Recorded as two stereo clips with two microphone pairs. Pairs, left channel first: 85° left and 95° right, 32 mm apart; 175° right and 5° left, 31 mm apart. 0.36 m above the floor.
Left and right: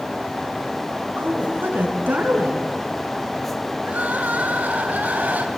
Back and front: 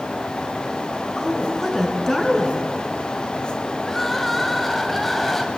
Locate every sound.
1.2 s a woman speaking: 90° right, 5.5 m
3.8 s crying: 85° right, 2.5 m